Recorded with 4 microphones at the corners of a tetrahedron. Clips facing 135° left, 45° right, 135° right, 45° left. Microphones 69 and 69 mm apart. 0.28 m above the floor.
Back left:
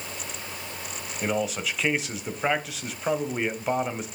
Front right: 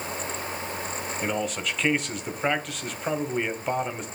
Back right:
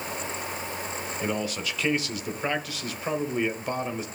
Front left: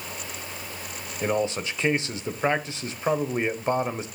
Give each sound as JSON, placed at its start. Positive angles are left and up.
{"t": 1.2, "sound": "a man speaking", "azimuth_deg": 55, "distance_m": 0.9}